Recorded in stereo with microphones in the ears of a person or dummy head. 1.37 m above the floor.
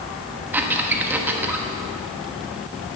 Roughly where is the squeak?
Centre.